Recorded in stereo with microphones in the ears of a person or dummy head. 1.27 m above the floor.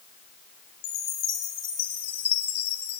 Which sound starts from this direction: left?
A chime, at 0.8 s.